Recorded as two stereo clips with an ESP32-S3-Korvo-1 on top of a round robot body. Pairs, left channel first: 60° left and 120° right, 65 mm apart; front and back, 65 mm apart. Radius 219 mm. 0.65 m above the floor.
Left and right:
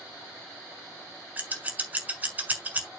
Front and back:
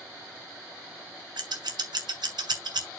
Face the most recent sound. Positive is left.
turn(degrees=170)